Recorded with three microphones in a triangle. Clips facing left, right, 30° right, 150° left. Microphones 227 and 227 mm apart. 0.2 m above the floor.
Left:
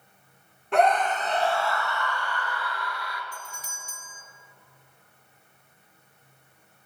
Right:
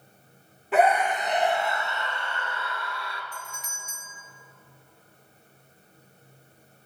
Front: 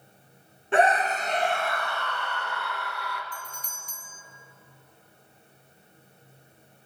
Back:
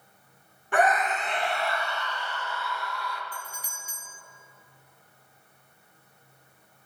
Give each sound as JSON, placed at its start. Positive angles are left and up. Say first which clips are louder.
{"t": 0.7, "sound": "a scream", "louder": "even, front 2 dB", "azimuth_deg": -10, "distance_m": 1.1}
{"t": 3.3, "sound": "a doorbell", "louder": "right 1 dB, even", "azimuth_deg": 75, "distance_m": 1.9}